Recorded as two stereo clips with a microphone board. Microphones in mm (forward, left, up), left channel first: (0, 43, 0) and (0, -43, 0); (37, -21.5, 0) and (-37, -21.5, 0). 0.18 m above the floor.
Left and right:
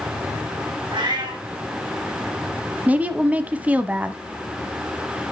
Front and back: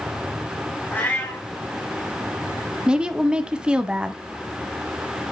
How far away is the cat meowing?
About 4 m.